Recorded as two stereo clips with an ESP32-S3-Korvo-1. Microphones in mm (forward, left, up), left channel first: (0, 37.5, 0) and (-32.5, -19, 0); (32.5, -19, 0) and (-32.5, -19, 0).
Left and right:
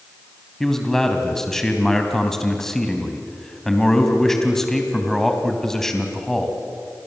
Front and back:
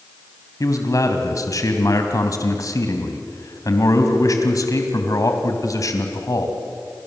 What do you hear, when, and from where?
0.6 s a man speaking: 25° right, 3 m